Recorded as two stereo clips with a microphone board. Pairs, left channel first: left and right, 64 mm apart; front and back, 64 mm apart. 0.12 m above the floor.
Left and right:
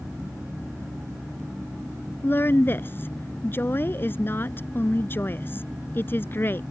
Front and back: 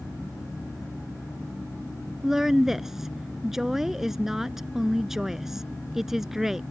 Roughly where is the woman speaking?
Left.